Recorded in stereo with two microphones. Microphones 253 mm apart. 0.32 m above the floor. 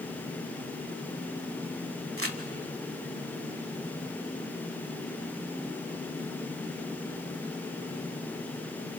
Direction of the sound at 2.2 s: 55° right (ahead or behind).